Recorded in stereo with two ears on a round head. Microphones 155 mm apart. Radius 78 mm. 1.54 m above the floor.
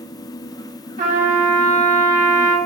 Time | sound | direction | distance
1.0 | a trumpet | 45° right (ahead or behind) | 1.5 m